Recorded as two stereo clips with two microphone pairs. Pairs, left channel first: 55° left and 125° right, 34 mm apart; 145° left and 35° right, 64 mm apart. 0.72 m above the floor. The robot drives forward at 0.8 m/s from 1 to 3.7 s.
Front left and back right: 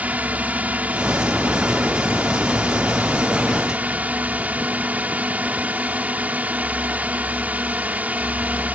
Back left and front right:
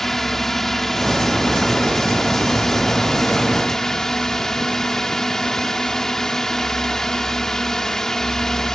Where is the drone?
130° right; by 8.8 s 135° right.